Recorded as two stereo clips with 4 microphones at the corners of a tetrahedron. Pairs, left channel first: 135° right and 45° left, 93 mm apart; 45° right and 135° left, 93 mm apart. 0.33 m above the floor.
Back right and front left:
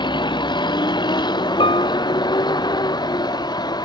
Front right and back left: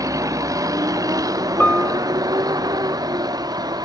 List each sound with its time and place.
0.0 s a vehicle: 170° right; by 3.9 s straight behind
1.6 s a piano: 120° right